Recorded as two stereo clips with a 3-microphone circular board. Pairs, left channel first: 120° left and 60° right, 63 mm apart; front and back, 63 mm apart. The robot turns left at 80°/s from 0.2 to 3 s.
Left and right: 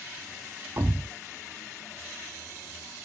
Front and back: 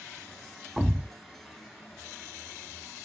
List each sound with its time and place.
0.8 s a thud: 90° right, 0.9 m; by 1.1 s 120° right, 0.9 m